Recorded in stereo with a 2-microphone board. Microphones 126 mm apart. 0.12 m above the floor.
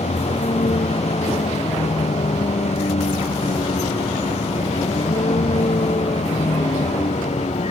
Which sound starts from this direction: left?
A vehicle, at 0.0 s.